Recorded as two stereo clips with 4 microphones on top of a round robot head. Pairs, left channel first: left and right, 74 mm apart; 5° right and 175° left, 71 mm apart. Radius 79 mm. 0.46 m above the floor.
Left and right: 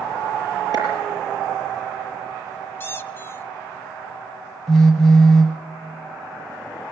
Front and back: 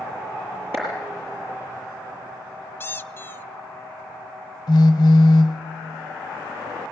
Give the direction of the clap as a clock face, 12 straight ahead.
4 o'clock.